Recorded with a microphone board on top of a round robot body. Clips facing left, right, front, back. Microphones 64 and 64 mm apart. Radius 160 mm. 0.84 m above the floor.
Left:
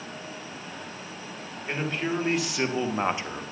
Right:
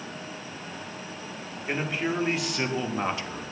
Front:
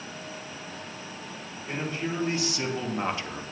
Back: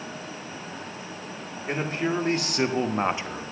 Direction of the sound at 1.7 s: 170° right.